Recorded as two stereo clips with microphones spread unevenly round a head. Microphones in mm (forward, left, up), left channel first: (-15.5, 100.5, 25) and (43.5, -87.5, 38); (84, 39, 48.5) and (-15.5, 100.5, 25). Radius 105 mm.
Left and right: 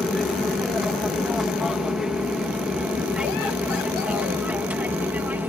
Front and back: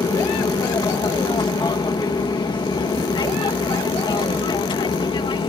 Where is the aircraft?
20° left; by 5.5 s 10° left.